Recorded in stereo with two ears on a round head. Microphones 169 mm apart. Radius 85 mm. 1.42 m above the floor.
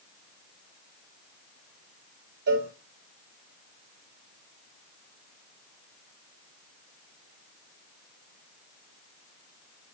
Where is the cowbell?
55° right (ahead or behind), 4 m.